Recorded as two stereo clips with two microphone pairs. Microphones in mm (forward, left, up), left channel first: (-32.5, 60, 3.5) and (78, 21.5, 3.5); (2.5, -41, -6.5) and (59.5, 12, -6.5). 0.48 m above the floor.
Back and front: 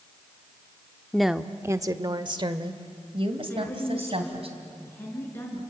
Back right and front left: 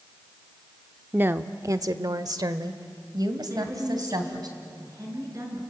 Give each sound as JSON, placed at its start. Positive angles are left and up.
{"t": 1.1, "sound": "a woman speaking", "azimuth_deg": 80, "distance_m": 0.7}
{"t": 3.5, "sound": "a woman speaking", "azimuth_deg": 90, "distance_m": 6.0}